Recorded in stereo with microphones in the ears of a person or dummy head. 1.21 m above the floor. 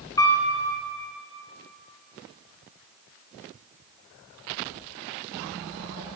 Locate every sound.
0.2 s a piano: 20° left (ahead or behind), 2.0 m